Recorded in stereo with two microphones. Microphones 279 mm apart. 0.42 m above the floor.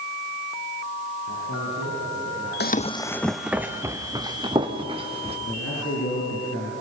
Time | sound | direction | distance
1.3 | a man speaking | 80° left | 8.5 m
2.6 | running footsteps | 40° left (ahead or behind) | 0.7 m
5.5 | a man speaking | 55° left (ahead or behind) | 6 m